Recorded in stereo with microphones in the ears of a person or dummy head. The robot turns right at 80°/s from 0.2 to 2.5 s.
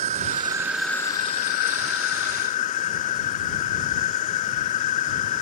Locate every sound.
0.0 s an insect: 45° right; by 5.4 s 135° left